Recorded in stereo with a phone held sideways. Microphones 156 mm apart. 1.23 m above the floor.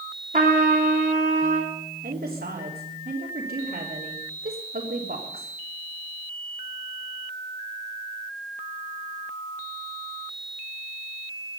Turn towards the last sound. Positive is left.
turn(degrees=-75)  # may be behind; listen again after turning